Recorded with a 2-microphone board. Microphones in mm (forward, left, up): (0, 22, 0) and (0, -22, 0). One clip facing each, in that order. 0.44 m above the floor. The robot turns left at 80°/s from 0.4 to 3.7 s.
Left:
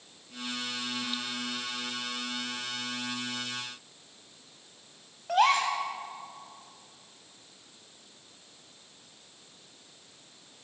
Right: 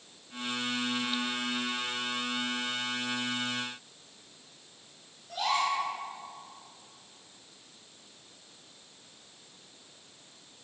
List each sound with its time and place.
5.3 s a gasp: 70° left (ahead or behind), 3 m